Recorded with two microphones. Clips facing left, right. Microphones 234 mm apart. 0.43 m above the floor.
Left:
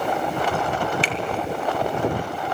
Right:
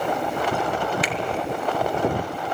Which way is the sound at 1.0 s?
30° left (ahead or behind).